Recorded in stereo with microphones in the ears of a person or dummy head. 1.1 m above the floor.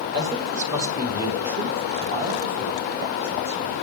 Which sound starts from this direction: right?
A man speaking, at 0.1 s.